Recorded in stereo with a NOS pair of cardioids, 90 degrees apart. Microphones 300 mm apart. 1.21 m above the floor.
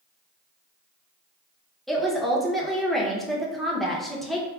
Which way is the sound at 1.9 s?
Straight ahead.